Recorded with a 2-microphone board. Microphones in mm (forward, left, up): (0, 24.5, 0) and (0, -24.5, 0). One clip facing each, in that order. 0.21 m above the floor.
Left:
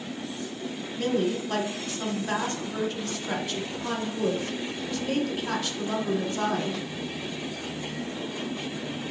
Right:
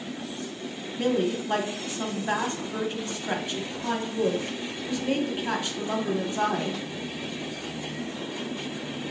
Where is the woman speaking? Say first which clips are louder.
Right 1 dB; 25° right (ahead or behind), 1.0 m.